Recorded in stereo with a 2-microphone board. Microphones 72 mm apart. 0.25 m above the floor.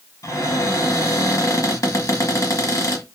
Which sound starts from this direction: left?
A cupboard door, at 0.2 s.